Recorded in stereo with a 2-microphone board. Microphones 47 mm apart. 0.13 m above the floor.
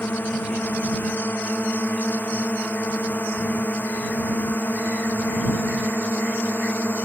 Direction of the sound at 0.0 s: 40° left (ahead or behind).